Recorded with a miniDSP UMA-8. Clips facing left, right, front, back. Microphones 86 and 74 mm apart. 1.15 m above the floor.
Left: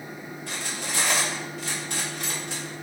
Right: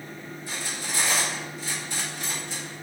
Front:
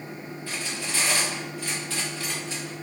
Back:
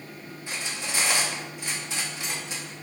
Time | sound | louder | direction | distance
0.5 | cutlery clinking | left 1 dB, even | 110° left | 1.0 m